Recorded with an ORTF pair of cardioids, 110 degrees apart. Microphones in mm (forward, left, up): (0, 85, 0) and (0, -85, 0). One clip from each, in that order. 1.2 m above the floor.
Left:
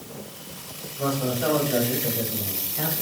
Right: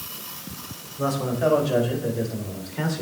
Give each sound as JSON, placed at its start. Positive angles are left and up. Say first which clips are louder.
{"t": 1.0, "sound": "a man speaking", "louder": "right 2 dB", "azimuth_deg": -25, "distance_m": 5.0}